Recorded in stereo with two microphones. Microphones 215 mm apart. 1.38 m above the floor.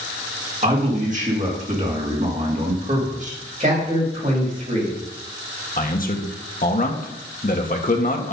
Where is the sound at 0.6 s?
35° right (ahead or behind), 2.5 m.